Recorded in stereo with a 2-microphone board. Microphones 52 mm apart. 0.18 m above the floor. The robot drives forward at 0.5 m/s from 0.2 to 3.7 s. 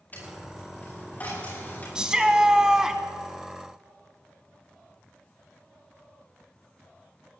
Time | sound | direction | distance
0.1 | a dropped coin | 35° left (ahead or behind) | 6.5 m
1.9 | a shout | 15° right (ahead or behind) | 1.0 m